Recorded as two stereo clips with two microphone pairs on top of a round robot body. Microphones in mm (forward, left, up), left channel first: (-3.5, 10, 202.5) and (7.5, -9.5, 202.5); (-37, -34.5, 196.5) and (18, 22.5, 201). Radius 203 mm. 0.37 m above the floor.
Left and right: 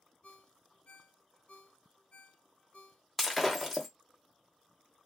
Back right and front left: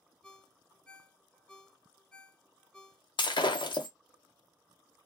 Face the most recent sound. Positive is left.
turn(degrees=-155)